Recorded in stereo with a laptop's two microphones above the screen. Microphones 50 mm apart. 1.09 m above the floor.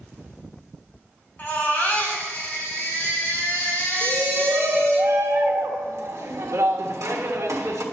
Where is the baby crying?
50° left (ahead or behind), 3 m.